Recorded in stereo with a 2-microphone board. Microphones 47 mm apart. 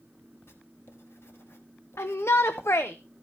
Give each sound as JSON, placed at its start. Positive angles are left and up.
{"t": 0.5, "sound": "writing", "side_deg": 60, "distance_m": 1.7}
{"t": 2.0, "sound": "a shout", "side_deg": 75, "distance_m": 0.7}